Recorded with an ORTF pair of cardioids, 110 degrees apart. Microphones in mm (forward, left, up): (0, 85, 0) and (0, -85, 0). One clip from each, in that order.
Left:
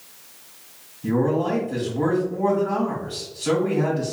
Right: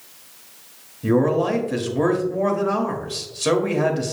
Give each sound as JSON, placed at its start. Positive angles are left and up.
{"t": 1.0, "sound": "a man speaking", "azimuth_deg": -65, "distance_m": 1.4}